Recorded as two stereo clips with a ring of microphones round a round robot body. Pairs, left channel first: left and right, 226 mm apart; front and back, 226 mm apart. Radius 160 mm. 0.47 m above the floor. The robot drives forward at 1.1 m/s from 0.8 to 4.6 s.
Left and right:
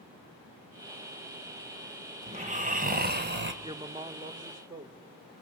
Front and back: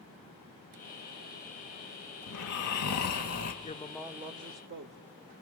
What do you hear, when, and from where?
2.3 s snoring: 30° right, 3 m; by 3.5 s 50° right, 1.7 m
3.6 s a woman speaking: 30° right, 0.8 m; by 5.0 s 160° right, 1.0 m